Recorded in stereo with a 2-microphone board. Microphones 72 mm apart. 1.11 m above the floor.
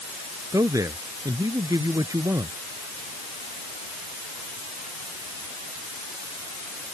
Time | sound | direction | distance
0.5 | a man speaking | 55° right (ahead or behind) | ?